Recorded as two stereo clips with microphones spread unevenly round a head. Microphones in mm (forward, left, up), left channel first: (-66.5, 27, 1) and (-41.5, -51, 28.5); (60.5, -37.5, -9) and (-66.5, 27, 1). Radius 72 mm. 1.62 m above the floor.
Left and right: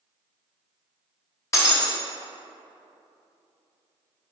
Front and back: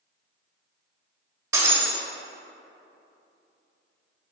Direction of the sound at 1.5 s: 160° left.